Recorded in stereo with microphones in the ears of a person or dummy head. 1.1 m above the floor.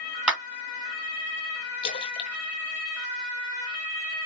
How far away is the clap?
About 1.8 m.